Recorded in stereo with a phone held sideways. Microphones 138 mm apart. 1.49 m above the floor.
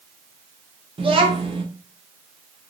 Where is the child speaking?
40° right (ahead or behind), 0.7 m.